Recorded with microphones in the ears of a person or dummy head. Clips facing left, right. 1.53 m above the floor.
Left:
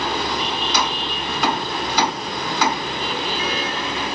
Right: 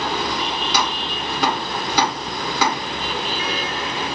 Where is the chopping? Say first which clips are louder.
Even; 50° right (ahead or behind), 1.7 m.